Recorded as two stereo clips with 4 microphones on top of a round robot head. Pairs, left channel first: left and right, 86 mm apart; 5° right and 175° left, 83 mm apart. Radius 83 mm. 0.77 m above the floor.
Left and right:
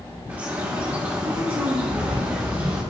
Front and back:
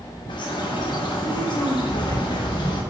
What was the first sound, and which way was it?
A bird, 20° right.